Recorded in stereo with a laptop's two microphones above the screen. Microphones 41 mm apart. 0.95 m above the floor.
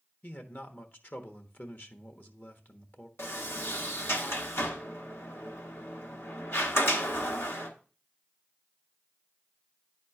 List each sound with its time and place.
0.2 s a man speaking: 45° left (ahead or behind), 1.2 m
3.2 s a sliding door: 75° left (ahead or behind), 1.3 m